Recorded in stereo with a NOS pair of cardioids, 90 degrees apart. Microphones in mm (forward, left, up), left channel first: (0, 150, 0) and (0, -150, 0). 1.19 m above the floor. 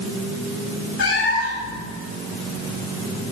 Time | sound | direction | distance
1.0 | a cat meowing | 60° left | 2.5 m